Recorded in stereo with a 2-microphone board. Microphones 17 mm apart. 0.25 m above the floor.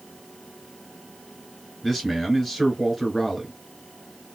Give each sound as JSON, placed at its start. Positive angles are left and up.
{"t": 1.8, "sound": "a man speaking", "side_deg": 15, "distance_m": 1.4}